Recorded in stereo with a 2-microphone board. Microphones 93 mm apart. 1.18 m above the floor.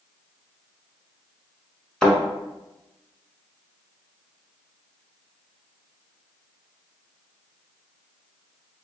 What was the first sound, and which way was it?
A thud, 5° left (ahead or behind).